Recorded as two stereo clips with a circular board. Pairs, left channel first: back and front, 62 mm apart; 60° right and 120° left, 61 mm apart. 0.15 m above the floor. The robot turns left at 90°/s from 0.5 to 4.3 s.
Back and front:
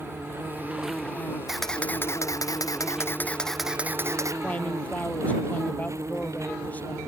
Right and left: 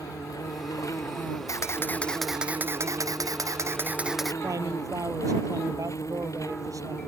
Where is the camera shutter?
80° right; by 4.3 s 25° left.